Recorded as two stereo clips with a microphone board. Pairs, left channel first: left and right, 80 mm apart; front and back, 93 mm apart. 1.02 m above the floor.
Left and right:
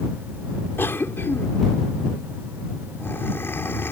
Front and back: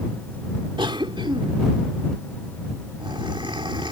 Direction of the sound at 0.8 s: 150° left.